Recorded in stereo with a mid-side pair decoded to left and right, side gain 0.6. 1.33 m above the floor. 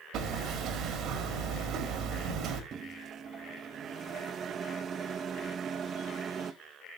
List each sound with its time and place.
0.1 s hammering: 60° right, 2.5 m
2.7 s a microwave: 45° right, 1.0 m